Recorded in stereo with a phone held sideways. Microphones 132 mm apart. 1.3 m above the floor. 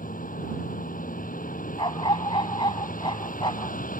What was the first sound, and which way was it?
A vehicle, 80° left.